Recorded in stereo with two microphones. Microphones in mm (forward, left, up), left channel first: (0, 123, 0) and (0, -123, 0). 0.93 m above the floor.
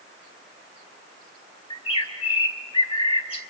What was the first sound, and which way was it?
A bird, 25° left (ahead or behind).